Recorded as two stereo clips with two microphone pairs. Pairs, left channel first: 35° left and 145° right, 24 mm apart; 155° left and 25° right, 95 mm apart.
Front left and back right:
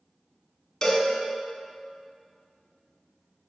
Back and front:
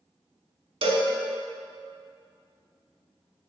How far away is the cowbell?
About 0.5 m.